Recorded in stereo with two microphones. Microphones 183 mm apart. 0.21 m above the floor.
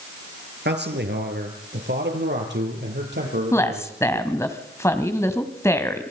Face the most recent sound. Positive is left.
turn(degrees=15)  # may be behind; listen again after turning